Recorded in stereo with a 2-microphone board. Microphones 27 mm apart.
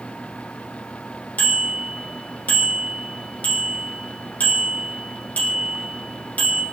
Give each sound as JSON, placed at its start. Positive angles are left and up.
{"t": 1.4, "sound": "a bicycle bell", "side_deg": 85, "distance_m": 6.0}